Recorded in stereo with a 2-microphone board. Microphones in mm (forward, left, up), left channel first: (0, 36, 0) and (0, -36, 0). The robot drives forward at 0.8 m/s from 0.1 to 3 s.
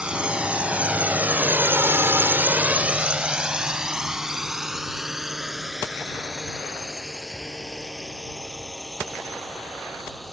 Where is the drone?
15° right (ahead or behind); by 10.3 s centre (ahead or behind).